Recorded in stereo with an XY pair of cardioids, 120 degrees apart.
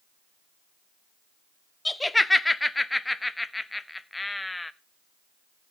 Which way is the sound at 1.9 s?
10° left.